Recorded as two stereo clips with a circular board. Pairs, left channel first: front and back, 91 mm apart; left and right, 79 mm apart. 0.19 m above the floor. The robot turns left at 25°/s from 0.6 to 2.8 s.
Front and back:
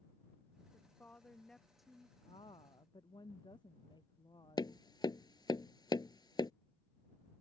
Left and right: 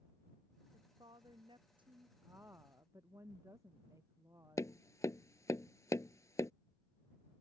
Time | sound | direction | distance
0.7 | a woman speaking | 65° right | ?
2.2 | a woman speaking | 25° right | ?
4.6 | tapping | 40° left | ?